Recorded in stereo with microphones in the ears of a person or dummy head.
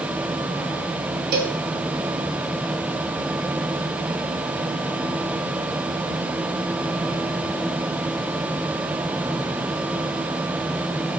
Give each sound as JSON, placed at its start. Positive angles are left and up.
{"t": 1.3, "sound": "a cowbell", "side_deg": -50, "distance_m": 1.4}